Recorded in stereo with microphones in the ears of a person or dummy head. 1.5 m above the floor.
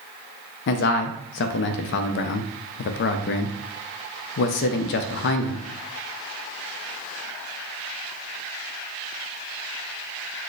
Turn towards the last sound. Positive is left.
turn(degrees=50)  # may be behind; listen again after turning